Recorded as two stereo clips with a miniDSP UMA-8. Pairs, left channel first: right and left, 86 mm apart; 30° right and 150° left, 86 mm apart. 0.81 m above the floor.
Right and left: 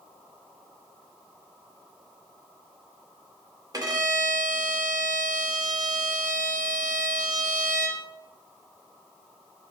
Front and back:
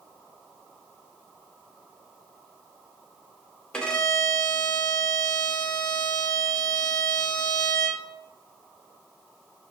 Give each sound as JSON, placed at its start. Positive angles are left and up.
{"t": 3.7, "sound": "a violin", "azimuth_deg": 50, "distance_m": 0.8}